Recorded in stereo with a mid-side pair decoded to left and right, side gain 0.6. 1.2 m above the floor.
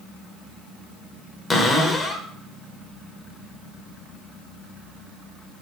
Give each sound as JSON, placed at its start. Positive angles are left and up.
{"t": 1.5, "sound": "a cupboard door", "azimuth_deg": 15, "distance_m": 0.8}